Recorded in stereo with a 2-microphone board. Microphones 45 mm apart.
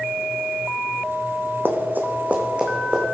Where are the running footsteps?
50° right (ahead or behind), 1.3 m; by 3.0 s 15° right (ahead or behind), 1.9 m.